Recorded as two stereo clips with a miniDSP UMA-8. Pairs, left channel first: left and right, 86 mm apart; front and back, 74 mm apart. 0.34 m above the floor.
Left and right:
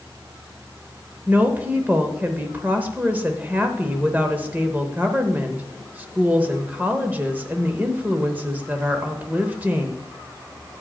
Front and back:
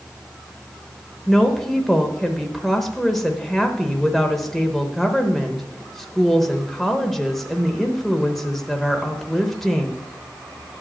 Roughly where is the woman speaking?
Right.